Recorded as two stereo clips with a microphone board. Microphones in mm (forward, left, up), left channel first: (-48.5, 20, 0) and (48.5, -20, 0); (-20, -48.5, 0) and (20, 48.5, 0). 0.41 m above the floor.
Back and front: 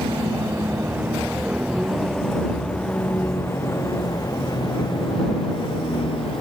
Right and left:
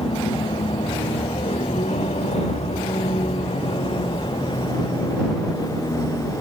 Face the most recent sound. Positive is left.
turn(degrees=-170)